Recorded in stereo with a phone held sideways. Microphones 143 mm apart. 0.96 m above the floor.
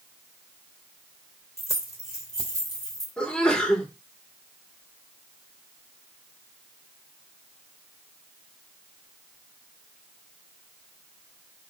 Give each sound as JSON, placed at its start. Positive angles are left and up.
{"t": 1.6, "sound": "keys jangling", "side_deg": 20, "distance_m": 2.5}
{"t": 3.2, "sound": "a sneeze", "side_deg": 5, "distance_m": 4.0}